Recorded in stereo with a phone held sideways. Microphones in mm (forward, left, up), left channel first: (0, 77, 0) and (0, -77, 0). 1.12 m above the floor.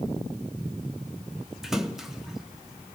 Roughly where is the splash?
Centre.